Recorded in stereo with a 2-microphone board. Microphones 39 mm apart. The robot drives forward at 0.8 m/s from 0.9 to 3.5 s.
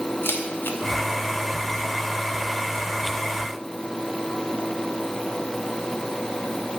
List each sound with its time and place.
0.2 s a camera shutter: 80° left, 2.5 m